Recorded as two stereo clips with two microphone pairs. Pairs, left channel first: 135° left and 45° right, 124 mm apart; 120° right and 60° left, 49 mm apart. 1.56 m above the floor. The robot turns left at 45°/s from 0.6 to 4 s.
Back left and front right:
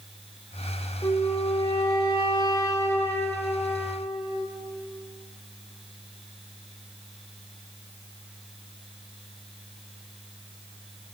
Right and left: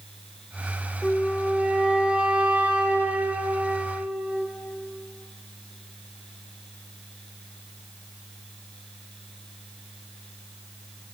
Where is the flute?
165° left, 1.5 m; by 4.5 s 30° left, 1.5 m.